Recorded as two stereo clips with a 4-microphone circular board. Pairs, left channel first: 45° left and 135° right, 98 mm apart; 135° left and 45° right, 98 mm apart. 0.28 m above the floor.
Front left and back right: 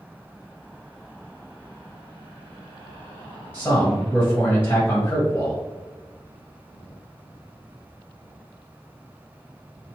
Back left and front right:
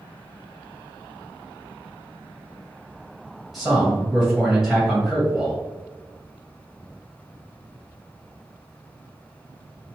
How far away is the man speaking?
About 1.6 m.